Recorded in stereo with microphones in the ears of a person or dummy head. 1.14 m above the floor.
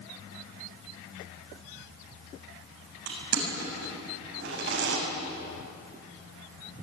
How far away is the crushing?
About 7 m.